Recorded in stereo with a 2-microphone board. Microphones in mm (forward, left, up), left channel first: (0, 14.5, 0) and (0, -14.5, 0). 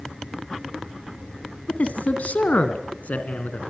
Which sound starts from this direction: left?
A man speaking, at 1.7 s.